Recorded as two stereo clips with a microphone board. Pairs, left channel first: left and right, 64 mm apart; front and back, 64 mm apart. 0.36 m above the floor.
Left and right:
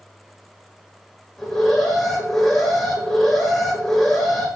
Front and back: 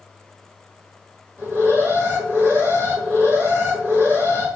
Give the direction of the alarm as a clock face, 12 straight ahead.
6 o'clock.